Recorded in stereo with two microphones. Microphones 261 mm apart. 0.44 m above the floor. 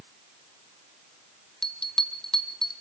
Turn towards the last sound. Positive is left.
turn(degrees=0)  # may be behind; listen again after turning